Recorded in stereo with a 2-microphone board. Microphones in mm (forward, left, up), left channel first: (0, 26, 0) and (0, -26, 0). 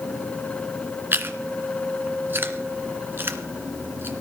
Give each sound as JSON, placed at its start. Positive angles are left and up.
{"t": 1.1, "sound": "chewing", "side_deg": -45, "distance_m": 1.8}